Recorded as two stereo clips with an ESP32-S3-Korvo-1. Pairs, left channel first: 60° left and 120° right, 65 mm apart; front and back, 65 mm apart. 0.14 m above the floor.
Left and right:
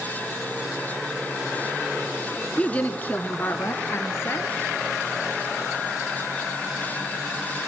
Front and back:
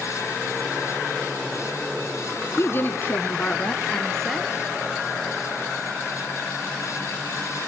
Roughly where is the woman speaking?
Ahead.